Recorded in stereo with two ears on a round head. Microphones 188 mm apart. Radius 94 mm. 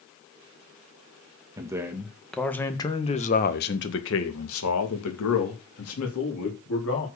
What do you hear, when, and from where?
1.6 s a man speaking: 15° right (ahead or behind), 1.9 m; by 7.1 s 80° left, 3.5 m